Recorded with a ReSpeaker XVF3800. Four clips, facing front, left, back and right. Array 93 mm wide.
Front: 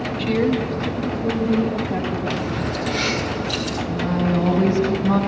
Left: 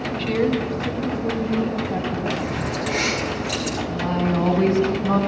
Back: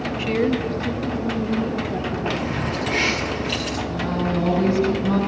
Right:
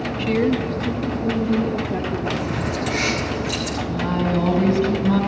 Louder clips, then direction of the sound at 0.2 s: Right 2 dB, front 1 dB; 155° right.